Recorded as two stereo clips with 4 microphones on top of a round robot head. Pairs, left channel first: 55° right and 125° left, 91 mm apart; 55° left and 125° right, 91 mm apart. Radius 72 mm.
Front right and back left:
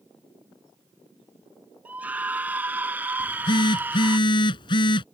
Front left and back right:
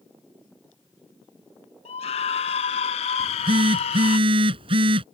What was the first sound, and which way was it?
A scream, 50° left.